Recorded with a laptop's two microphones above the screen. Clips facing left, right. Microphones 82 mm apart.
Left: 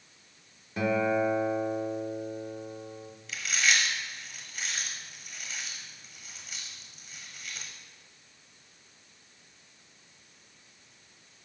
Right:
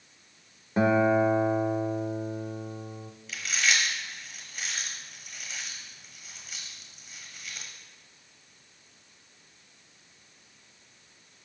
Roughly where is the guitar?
Right.